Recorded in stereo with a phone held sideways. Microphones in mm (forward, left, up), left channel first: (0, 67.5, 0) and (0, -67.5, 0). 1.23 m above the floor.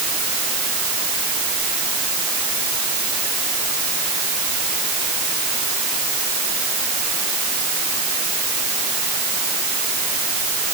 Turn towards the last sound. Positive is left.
No sound to turn to.